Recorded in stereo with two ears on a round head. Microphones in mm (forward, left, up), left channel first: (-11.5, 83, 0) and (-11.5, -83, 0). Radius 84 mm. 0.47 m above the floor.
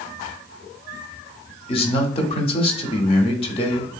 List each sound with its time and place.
1.7 s a man speaking: 30° left (ahead or behind), 0.8 m